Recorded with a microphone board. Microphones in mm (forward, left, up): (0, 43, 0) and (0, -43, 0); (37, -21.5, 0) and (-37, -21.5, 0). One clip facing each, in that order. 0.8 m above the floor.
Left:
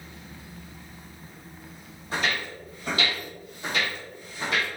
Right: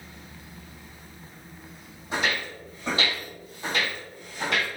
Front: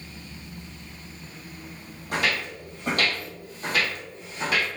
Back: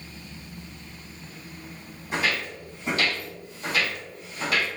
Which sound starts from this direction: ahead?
Footsteps, at 2.1 s.